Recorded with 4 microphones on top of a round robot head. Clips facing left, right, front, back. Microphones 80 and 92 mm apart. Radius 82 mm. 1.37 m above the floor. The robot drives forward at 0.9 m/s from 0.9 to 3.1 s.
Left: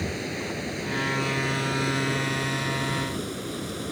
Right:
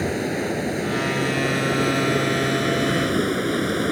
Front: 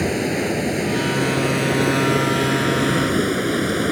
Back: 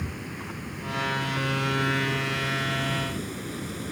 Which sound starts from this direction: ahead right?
Running water, at 0.0 s.